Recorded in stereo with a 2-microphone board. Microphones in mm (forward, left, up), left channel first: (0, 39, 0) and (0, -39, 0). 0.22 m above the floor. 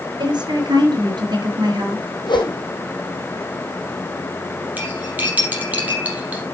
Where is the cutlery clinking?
20° right (ahead or behind), 4.5 m.